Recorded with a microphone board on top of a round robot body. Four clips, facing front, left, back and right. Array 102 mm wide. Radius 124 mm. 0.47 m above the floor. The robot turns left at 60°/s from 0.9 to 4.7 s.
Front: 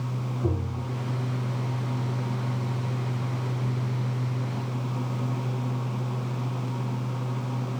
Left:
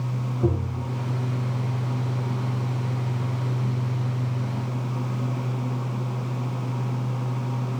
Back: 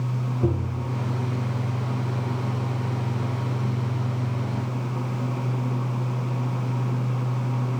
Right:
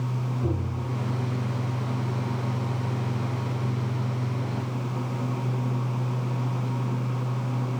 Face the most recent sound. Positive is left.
turn(degrees=-75)